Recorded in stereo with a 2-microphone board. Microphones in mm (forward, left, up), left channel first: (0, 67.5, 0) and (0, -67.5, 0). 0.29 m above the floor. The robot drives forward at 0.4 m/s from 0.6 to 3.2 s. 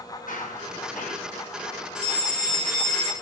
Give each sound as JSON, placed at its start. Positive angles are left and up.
{"t": 0.3, "sound": "running footsteps", "side_deg": 80, "distance_m": 9.0}
{"t": 1.9, "sound": "a fire alarm", "side_deg": -55, "distance_m": 4.0}